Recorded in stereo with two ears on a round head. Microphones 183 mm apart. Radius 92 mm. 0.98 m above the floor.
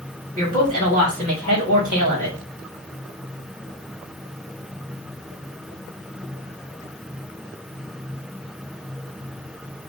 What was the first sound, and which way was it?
A woman speaking, 45° right (ahead or behind).